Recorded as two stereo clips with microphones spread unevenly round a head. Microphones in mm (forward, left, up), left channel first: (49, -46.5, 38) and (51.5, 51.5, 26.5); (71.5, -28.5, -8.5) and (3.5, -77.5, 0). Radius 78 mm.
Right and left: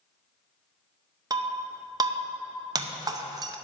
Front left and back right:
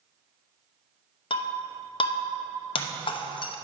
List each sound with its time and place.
1.3 s breaking glass: 40° left, 0.7 m